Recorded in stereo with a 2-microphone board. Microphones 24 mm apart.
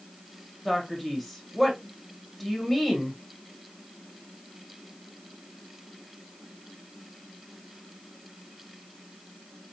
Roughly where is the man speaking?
Centre.